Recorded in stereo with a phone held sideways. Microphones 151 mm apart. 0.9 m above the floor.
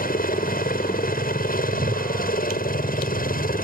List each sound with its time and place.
0.0 s a helicopter: 70° left (ahead or behind)
1.7 s a whoosh: 40° right (ahead or behind)